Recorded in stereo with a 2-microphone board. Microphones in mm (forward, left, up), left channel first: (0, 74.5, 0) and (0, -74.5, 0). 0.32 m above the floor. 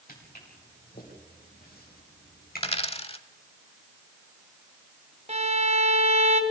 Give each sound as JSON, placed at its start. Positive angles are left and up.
{"t": 0.1, "sound": "footsteps", "side_deg": 75, "distance_m": 7.5}
{"t": 2.6, "sound": "a dropped coin", "side_deg": 40, "distance_m": 0.9}
{"t": 5.3, "sound": "a violin", "side_deg": -50, "distance_m": 1.8}